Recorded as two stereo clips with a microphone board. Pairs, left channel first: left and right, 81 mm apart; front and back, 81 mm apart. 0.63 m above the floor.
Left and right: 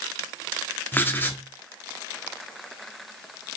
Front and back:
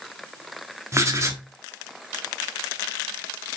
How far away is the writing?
About 1.3 m.